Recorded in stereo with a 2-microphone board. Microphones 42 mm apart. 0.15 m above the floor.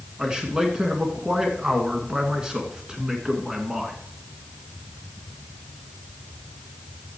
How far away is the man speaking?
About 1.8 m.